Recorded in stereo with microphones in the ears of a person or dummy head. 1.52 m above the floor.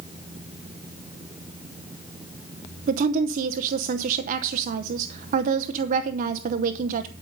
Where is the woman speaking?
50° right (ahead or behind), 0.7 m.